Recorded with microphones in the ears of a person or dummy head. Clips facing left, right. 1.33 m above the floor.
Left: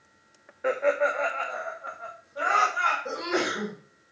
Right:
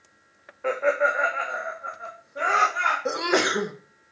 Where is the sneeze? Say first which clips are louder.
Right 5 dB; 70° right (ahead or behind), 1.4 m.